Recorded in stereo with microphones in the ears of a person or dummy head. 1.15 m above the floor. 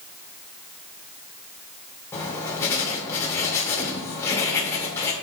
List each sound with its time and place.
2.1 s writing: 10° left (ahead or behind), 2 m